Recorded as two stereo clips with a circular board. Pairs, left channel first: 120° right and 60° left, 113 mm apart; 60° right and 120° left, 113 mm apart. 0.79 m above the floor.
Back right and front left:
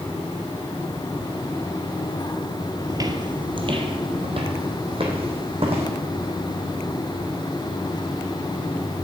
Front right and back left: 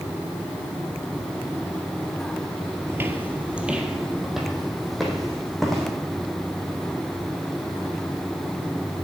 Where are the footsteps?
75° left, 0.9 m; by 5.9 s 30° left, 2.5 m.